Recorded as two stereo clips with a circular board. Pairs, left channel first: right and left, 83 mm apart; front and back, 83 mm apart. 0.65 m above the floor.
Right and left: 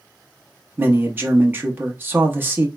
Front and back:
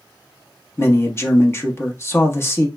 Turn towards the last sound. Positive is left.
turn(degrees=40)